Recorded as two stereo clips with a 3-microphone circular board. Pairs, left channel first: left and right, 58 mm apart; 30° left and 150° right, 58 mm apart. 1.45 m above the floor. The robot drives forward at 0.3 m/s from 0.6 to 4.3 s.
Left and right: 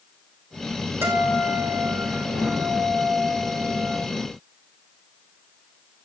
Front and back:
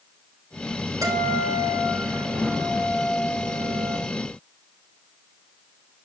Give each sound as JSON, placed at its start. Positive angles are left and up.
{"t": 1.0, "sound": "a guitar", "azimuth_deg": -135, "distance_m": 4.0}